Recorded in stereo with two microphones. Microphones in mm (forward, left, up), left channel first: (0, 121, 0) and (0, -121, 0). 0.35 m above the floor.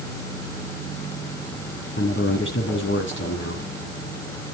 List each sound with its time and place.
2.0 s a man speaking: 55° left (ahead or behind), 3 m